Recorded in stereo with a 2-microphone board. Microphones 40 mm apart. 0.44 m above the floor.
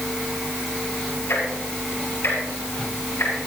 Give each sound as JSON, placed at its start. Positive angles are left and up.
{"t": 1.3, "sound": "ticking", "side_deg": 85, "distance_m": 10.0}